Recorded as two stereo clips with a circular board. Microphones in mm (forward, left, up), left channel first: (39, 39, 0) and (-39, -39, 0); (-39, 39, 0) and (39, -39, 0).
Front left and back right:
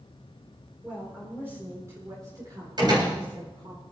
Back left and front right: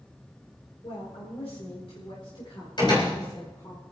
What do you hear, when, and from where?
0.8 s a woman speaking: 150° left, 4.5 m; by 3.8 s 170° right, 4.5 m
2.8 s a door slam: straight behind, 7 m